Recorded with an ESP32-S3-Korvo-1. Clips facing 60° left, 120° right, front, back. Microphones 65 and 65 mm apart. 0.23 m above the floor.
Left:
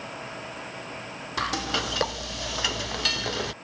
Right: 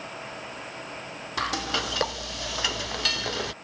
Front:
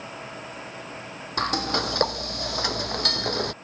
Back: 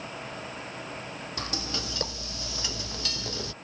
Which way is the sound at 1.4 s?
30° right.